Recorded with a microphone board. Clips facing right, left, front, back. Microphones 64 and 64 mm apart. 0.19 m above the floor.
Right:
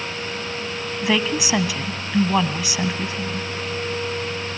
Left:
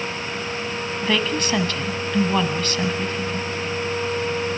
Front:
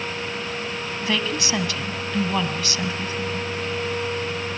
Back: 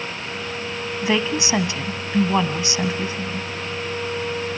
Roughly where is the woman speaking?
Behind right.